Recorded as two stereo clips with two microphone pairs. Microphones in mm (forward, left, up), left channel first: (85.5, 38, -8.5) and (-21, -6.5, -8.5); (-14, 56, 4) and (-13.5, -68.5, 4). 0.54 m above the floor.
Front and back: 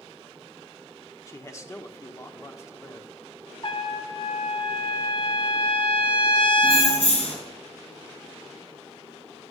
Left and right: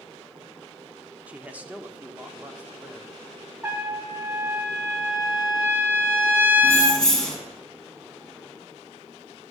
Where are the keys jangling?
5° left, 4 m.